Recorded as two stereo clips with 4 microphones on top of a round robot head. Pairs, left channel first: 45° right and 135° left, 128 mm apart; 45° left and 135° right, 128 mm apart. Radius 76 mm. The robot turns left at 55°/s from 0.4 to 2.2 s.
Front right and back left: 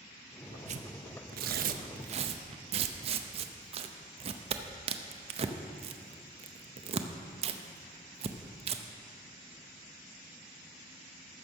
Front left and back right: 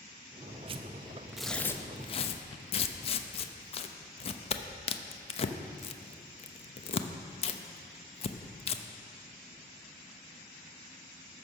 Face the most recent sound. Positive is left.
turn(degrees=90)